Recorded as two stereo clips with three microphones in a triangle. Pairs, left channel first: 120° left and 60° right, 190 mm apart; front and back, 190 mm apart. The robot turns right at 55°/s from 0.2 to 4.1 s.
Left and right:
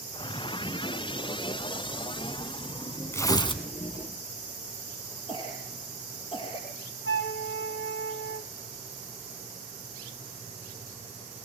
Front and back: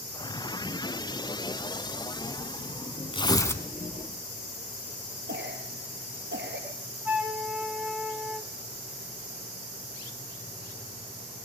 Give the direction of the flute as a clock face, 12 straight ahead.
9 o'clock.